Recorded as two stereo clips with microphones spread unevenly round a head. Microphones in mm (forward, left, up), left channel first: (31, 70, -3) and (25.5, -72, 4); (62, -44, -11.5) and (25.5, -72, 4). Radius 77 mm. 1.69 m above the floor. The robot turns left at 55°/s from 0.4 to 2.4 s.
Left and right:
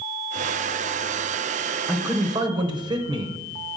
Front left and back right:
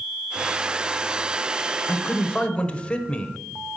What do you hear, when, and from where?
1.9 s a man speaking: 10° right, 1.0 m; by 3.4 s 35° right, 1.0 m